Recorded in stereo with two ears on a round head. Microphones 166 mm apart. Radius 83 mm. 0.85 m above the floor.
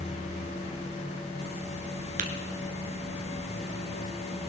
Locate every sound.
2.2 s tapping: 45° right (ahead or behind), 1.8 m